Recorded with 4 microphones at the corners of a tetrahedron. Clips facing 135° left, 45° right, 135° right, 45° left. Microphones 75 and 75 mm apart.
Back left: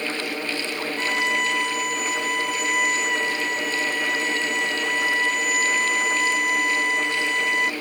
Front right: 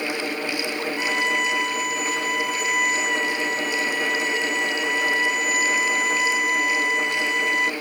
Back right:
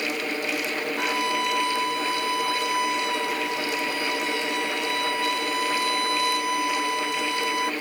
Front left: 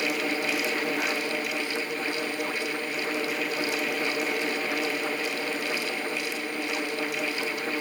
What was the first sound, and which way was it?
A violin, 135° right.